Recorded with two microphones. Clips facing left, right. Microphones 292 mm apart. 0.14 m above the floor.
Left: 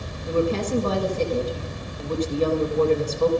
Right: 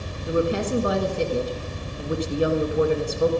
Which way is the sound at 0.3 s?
15° right (ahead or behind).